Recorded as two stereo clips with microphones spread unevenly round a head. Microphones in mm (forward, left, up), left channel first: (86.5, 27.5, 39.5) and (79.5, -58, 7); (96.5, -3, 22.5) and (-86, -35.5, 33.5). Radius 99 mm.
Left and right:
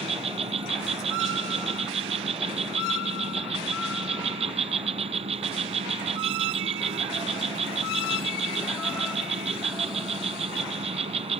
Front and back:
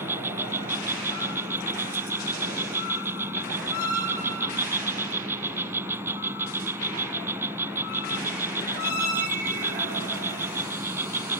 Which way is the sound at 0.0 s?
95° right.